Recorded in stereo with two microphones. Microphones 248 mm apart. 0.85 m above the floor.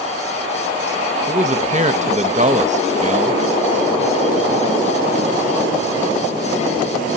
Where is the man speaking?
30° right (ahead or behind), 0.8 m.